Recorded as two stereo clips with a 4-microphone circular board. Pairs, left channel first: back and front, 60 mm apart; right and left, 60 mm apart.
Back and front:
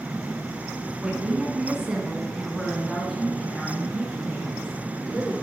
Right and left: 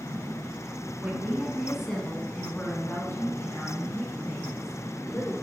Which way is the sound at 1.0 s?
50° left.